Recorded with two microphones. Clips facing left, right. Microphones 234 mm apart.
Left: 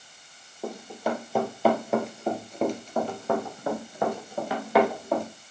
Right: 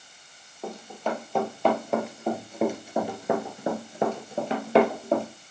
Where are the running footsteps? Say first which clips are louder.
Left 1 dB; 10° left (ahead or behind), 3 m; by 5.2 s 25° right (ahead or behind), 2.5 m.